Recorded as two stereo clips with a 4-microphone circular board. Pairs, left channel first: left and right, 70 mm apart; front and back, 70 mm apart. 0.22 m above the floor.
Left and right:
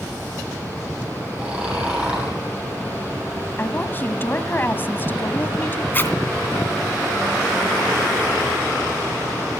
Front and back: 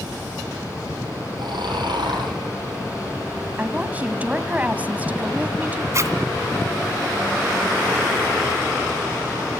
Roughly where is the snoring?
Behind.